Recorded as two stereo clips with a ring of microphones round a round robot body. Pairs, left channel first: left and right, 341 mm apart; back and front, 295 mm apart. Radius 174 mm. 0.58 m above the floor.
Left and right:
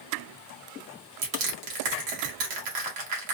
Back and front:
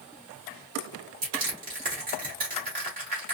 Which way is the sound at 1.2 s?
65° right.